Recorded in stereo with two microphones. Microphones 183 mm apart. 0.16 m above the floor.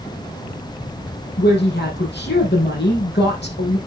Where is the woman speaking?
70° left (ahead or behind), 5.5 m.